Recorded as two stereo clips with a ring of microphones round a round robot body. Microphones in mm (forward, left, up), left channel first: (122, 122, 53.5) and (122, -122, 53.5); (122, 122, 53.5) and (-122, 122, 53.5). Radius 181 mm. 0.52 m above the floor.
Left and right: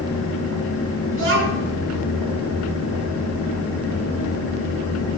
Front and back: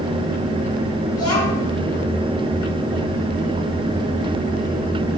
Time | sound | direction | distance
1.1 | a child speaking | 60° right | 5 m